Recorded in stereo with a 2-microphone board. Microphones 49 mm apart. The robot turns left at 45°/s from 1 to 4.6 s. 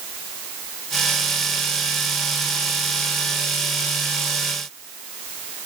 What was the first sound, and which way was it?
Only background noise.